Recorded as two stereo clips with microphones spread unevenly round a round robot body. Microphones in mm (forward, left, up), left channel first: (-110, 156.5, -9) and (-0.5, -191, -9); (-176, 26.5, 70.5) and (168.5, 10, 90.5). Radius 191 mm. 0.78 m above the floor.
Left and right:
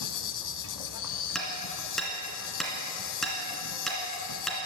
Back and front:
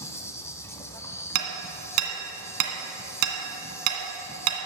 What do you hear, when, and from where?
0.0 s an insect: 95° left, 0.9 m
1.4 s hammering: 20° left, 2 m